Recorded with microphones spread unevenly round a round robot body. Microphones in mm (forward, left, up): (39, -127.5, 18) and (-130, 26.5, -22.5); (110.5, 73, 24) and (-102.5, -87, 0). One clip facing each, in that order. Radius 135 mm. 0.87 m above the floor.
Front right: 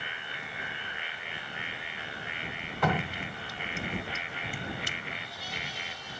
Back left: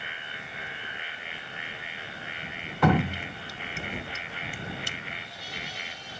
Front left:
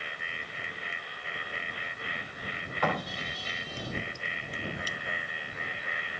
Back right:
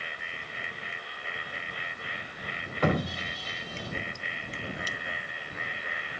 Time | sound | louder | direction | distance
2.8 | dripping | back left 7 dB, back right 6 dB | 150° left | ?